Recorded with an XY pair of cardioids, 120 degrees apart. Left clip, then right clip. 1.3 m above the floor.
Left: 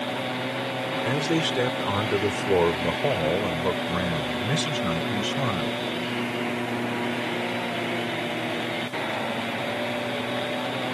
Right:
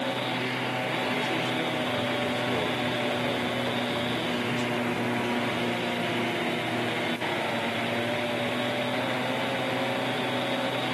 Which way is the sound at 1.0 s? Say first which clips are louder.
Left 3 dB; 70° left.